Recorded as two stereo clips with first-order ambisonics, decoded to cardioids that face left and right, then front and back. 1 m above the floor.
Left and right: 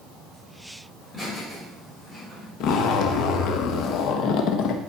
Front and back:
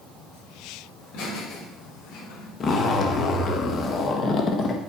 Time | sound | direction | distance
1.0 | laughter | 15° left | 4.5 m
2.6 | a zipper | 60° left | 1.0 m